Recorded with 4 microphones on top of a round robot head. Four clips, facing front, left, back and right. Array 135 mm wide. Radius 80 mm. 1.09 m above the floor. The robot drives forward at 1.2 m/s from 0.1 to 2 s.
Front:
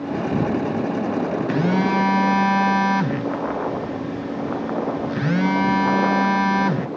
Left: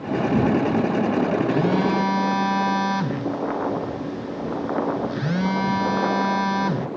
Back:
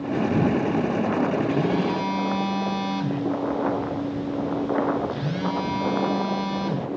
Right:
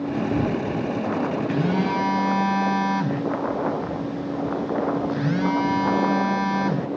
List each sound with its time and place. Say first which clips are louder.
1.5 s a phone buzzing: left 2 dB, front 3 dB; 5° left, 1.2 m; by 6.9 s 10° left, 0.7 m